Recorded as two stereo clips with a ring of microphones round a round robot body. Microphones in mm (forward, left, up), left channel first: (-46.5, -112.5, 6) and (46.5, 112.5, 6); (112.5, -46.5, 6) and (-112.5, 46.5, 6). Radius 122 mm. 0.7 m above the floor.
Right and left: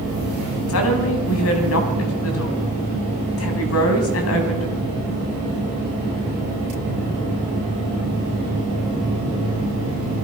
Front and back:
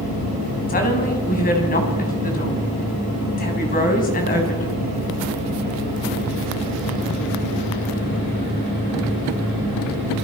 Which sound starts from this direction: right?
A woman speaking, at 0.7 s.